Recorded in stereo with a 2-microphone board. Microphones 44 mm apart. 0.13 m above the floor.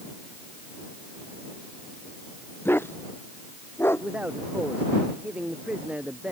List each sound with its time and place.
2.6 s a dog barking: 60° left (ahead or behind); by 4.1 s 65° left (ahead or behind)
4.0 s a man speaking: 30° right (ahead or behind)